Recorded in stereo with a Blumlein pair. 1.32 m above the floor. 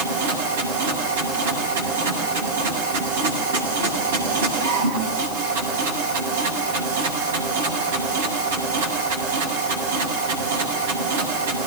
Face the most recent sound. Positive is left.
turn(degrees=-60)